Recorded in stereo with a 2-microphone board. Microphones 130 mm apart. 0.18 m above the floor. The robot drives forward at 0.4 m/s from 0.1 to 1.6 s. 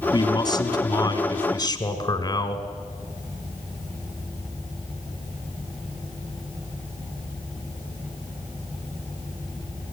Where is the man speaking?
30° left (ahead or behind), 1.6 m.